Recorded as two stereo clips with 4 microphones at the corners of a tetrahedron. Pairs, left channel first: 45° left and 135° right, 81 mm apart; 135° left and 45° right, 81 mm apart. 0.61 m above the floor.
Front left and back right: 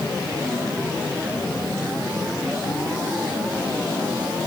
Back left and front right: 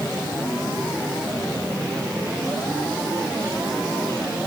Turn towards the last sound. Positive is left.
No sound to turn to.